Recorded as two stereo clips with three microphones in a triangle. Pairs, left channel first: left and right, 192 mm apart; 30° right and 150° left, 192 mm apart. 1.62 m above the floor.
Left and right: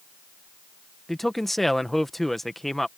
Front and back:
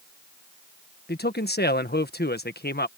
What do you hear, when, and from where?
1.1 s a man speaking: straight ahead